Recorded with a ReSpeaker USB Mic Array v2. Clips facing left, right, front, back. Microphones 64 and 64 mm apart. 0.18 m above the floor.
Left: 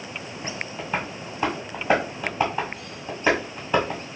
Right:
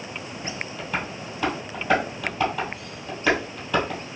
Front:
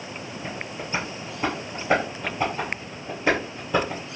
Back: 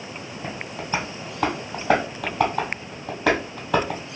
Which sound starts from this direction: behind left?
Tapping, at 0.4 s.